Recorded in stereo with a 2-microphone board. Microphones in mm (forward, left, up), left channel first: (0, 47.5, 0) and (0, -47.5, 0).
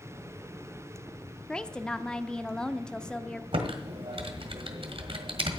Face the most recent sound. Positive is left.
turn(degrees=-70)  # may be behind; listen again after turning